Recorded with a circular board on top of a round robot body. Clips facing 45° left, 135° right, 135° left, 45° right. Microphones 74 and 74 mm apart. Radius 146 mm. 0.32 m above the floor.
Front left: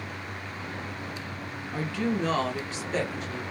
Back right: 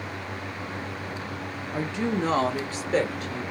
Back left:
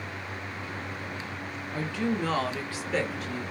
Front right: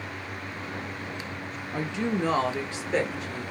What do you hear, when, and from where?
1.7 s a woman speaking: 75° right, 1.0 m; by 3.4 s 110° right, 1.9 m